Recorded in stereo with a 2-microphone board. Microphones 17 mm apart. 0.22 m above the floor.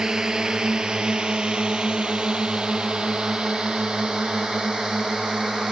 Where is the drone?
45° right (ahead or behind); by 5.7 s 75° right (ahead or behind).